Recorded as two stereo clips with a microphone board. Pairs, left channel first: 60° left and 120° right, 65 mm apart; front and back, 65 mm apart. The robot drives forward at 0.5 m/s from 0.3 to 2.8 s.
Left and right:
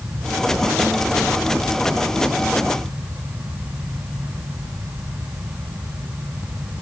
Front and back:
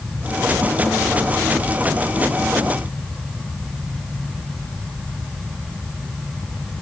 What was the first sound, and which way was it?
Only background noise.